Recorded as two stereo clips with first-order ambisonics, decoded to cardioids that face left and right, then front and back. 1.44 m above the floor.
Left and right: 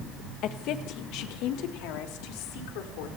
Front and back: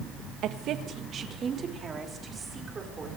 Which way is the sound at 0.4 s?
135° left.